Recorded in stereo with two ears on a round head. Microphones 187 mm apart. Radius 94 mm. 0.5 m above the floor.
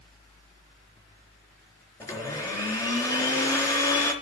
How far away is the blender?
About 4 m.